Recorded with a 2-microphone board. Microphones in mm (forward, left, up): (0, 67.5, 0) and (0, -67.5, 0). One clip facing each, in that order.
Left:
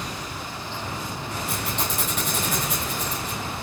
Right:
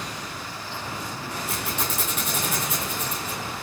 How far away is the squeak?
About 3.5 m.